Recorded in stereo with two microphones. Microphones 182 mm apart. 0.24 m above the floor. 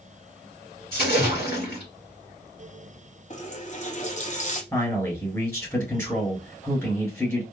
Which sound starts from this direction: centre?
A man speaking, at 4.7 s.